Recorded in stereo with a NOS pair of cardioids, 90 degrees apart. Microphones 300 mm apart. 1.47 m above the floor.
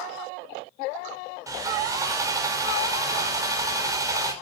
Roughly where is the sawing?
Ahead.